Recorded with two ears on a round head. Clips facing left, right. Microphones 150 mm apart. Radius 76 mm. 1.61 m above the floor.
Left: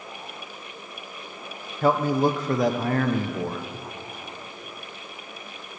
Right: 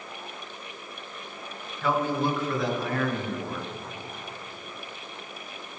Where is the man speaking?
35° left (ahead or behind), 1.0 m.